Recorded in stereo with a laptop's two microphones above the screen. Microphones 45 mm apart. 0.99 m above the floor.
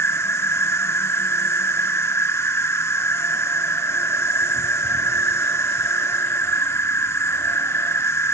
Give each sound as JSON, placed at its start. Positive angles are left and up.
{"t": 0.0, "sound": "an insect", "side_deg": 75, "distance_m": 1.0}